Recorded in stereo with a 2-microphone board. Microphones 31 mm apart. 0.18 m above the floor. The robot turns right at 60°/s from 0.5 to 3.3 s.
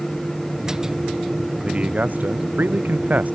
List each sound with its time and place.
1.6 s a man speaking: 150° right; by 3.4 s 50° right